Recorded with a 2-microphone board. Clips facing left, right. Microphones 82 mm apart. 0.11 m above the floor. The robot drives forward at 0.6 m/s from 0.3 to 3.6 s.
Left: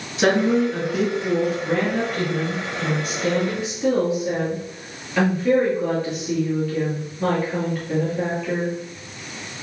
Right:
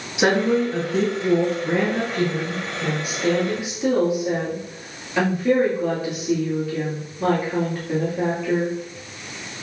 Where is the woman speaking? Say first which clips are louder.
Left 1 dB; 15° right (ahead or behind), 1.3 m; by 8.7 s 10° right (ahead or behind), 2.0 m.